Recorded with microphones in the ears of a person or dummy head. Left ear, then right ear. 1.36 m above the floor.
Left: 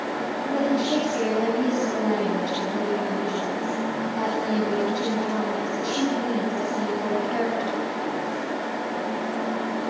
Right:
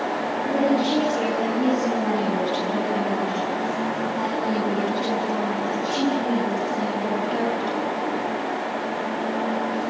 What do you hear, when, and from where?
0.5 s a woman speaking: 5° left (ahead or behind), 9.5 m